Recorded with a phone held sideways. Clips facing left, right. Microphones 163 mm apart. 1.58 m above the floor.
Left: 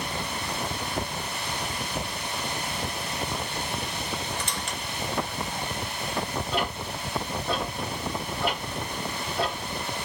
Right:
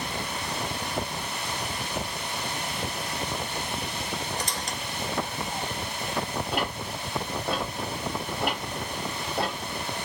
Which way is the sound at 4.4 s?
40° right (ahead or behind).